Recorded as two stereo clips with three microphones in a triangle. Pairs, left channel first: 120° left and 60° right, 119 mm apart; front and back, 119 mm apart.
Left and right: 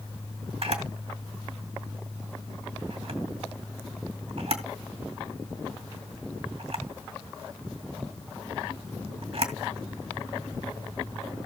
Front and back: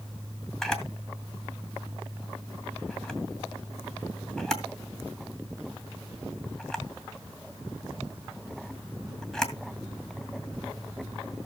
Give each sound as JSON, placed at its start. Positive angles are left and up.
{"t": 0.6, "sound": "a camera shutter", "azimuth_deg": -85, "distance_m": 2.5}